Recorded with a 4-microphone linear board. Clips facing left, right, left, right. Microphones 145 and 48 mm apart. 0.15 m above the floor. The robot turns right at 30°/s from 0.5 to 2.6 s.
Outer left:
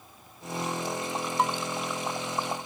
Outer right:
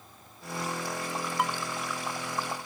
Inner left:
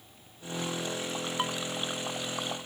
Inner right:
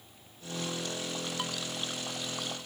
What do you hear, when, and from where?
1.4 s dishes clattering: 30° left (ahead or behind); by 1.6 s 35° left (ahead or behind)